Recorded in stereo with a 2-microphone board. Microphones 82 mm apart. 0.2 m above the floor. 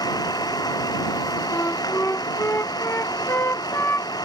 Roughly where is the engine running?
Left.